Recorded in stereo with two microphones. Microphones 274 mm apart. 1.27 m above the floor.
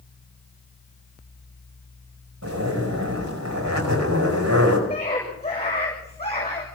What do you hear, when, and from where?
2.4 s a zipper: 75° right (ahead or behind), 5 m
4.9 s a scream: 20° left (ahead or behind), 7 m